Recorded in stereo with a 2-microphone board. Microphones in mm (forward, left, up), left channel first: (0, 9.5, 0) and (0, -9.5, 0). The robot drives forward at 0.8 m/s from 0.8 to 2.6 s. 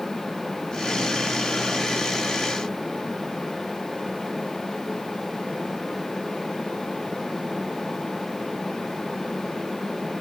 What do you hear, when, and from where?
Only background noise.